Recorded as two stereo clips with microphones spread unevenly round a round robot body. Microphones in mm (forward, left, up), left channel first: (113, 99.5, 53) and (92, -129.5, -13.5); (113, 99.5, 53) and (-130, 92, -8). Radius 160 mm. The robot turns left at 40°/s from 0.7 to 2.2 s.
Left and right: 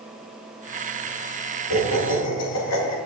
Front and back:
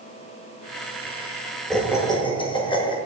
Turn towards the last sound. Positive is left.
turn(degrees=80)